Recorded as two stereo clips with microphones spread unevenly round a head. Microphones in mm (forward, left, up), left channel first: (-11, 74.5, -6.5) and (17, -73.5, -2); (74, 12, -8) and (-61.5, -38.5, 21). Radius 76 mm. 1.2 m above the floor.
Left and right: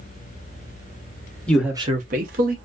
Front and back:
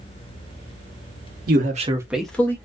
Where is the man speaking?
Straight behind, 0.7 m; by 2.5 s 50° right, 1.2 m.